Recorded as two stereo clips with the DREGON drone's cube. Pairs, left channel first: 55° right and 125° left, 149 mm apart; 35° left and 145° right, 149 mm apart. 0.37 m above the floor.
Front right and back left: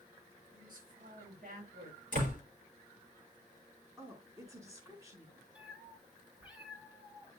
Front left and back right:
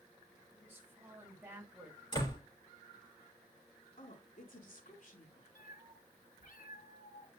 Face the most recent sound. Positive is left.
turn(degrees=40)